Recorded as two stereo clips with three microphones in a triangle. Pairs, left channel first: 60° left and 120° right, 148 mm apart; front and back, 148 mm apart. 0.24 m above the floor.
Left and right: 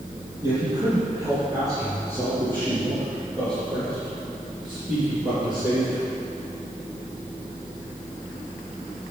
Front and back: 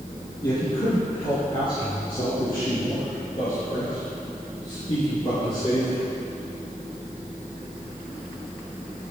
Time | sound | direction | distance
0.4 | a man speaking | 60° right | 3 m